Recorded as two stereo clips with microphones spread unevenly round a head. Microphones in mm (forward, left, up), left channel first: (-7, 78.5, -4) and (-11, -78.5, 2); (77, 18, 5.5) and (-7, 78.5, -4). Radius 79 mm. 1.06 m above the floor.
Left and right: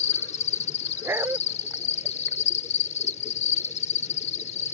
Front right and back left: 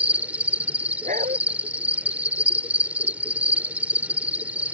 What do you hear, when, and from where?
0.0 s an insect: 65° left
1.0 s a dog barking: 170° right